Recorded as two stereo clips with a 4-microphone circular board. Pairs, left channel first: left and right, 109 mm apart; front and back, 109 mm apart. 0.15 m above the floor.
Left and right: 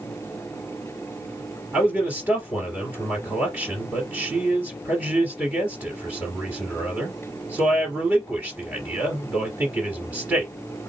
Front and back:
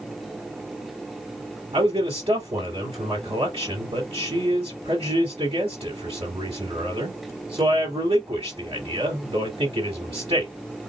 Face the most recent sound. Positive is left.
turn(degrees=-160)